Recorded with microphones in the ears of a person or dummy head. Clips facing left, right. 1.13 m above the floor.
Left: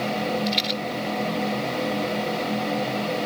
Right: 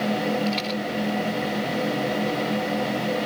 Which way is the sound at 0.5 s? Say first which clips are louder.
Right 1 dB; 20° left (ahead or behind).